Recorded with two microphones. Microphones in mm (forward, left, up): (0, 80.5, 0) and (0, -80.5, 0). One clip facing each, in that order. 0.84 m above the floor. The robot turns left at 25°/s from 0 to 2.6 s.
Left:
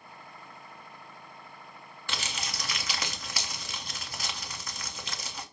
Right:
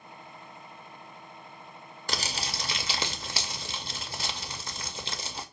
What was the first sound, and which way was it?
Crumpling, 40° right (ahead or behind).